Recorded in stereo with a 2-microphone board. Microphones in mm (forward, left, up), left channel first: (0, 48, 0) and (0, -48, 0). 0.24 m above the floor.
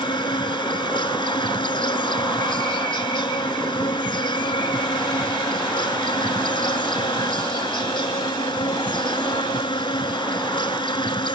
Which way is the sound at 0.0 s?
55° left (ahead or behind).